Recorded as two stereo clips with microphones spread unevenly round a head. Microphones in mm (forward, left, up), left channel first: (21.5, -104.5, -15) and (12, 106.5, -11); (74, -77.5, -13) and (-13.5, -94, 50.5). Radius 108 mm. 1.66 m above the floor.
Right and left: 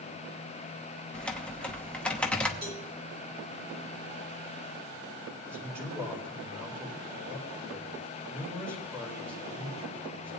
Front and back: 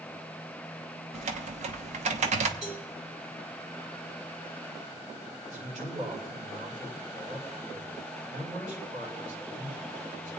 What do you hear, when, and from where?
1.1 s typing on a keyboard: 170° right, 0.8 m
2.6 s a cowbell: 160° left, 7 m
5.5 s a man speaking: 170° left, 7.5 m